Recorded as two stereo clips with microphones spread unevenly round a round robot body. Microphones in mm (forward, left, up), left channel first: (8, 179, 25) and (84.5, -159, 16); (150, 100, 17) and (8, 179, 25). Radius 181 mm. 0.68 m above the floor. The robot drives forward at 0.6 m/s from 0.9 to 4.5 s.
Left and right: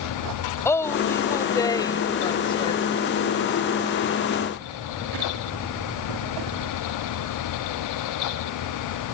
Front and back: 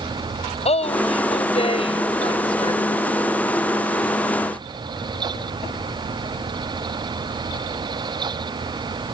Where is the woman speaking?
20° left; by 2.8 s 30° left.